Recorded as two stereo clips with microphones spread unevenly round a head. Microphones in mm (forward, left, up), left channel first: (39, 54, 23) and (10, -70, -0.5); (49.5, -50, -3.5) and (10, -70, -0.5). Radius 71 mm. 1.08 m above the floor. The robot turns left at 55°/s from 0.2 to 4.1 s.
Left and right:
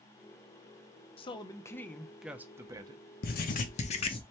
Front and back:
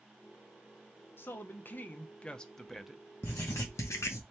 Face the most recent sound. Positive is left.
turn(degrees=25)